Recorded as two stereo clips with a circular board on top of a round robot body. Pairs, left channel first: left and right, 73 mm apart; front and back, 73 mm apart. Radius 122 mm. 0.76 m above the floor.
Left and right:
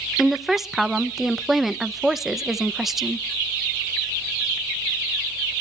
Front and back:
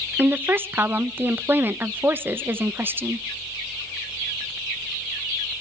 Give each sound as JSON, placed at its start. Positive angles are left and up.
{"t": 0.2, "sound": "a woman speaking", "azimuth_deg": -175, "distance_m": 1.0}